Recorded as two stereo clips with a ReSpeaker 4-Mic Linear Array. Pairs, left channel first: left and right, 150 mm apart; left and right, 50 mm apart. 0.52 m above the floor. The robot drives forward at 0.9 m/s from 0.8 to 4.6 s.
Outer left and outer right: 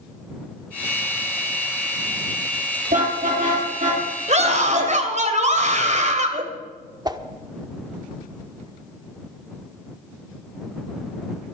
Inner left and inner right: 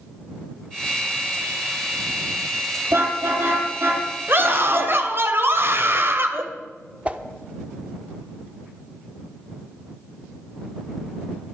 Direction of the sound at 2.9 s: 65° right (ahead or behind).